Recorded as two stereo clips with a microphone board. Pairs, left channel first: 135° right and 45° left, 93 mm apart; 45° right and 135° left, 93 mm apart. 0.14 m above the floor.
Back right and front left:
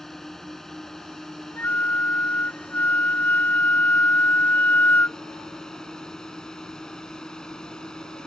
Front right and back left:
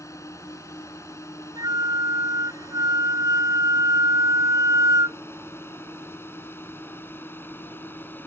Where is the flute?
160° left.